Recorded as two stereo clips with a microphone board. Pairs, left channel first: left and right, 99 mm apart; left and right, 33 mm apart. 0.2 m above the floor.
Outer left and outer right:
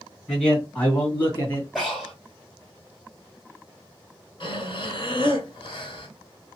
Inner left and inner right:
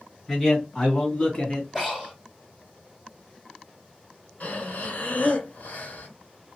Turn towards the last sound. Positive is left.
turn(degrees=55)  # may be behind; listen again after turning